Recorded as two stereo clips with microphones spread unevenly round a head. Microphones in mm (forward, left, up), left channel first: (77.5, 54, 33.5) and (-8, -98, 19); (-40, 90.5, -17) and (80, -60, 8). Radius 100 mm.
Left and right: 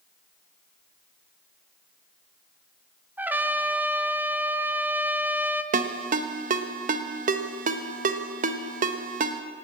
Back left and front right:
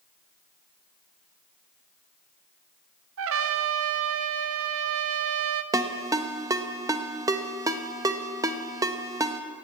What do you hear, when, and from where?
3.2 s a trumpet: 40° right, 0.7 m
5.7 s a ringtone: 105° right, 0.6 m